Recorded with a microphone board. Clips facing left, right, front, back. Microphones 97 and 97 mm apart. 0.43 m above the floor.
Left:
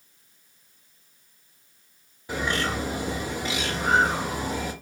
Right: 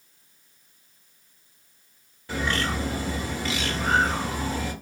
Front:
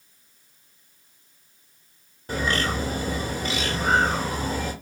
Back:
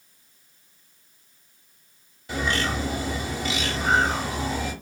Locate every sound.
2.3 s a bird: 25° left, 1.1 m